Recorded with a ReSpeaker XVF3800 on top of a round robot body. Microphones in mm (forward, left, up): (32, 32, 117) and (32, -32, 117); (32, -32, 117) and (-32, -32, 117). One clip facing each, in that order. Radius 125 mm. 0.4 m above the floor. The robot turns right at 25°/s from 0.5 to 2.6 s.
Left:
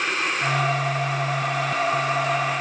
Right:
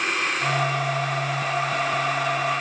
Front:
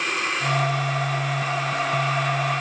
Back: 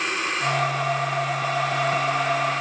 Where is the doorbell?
I don't hear a doorbell.